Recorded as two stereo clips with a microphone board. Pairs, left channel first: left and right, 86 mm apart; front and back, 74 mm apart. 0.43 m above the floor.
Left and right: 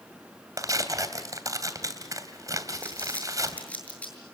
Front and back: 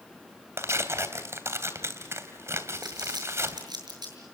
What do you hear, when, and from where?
0.6 s tearing paper: 135° right, 2.5 m
2.8 s crumpling: 165° left, 7 m